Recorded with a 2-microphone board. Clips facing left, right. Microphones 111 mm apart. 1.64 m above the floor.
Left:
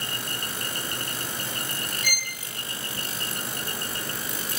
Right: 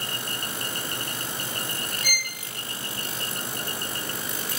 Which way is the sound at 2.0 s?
40° right (ahead or behind).